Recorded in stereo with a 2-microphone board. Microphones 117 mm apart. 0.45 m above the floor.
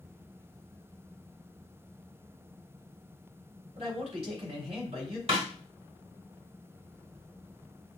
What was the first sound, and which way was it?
A man speaking, 55° right (ahead or behind).